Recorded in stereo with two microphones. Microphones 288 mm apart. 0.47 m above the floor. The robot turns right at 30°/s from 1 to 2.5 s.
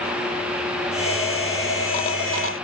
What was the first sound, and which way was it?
Only background noise.